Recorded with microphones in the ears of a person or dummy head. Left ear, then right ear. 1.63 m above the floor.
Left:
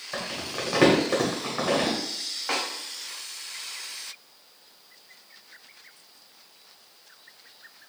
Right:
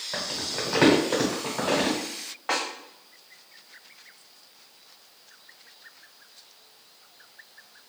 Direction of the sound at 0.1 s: 10° left (ahead or behind).